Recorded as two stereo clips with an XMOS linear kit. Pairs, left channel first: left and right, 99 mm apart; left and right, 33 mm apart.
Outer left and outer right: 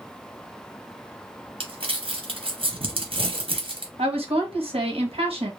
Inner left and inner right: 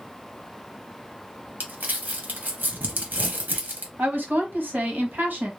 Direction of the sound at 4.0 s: 80° right.